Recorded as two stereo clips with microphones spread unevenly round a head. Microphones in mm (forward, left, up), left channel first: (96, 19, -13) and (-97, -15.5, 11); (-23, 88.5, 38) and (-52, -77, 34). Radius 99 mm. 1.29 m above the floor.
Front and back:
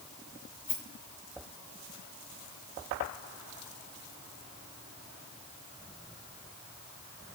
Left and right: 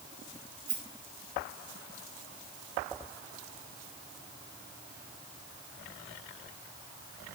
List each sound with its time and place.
0.7 s a rattle: 40° right, 4.5 m